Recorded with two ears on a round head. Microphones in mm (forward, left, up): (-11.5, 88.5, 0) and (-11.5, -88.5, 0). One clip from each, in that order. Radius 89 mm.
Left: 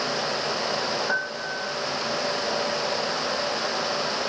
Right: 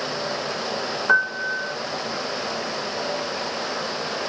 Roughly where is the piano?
Right.